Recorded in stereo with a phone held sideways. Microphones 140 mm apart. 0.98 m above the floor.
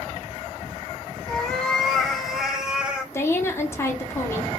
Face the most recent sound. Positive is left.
turn(degrees=20)  # may be behind; listen again after turning